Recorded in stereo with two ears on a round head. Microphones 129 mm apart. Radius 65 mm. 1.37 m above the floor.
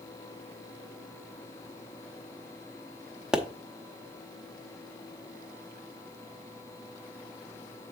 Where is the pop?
5° right (ahead or behind), 0.9 m.